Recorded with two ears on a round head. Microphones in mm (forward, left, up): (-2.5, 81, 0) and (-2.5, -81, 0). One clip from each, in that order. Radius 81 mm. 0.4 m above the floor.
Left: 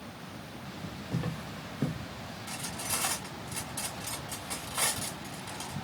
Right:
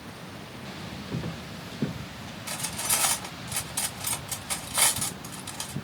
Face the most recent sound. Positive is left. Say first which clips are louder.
# right 6 dB
turn(degrees=-70)  # may be behind; listen again after turning